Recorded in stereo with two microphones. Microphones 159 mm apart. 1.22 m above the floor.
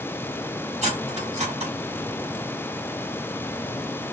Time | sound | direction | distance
0.8 | cutlery clinking | 45° right (ahead or behind) | 2 m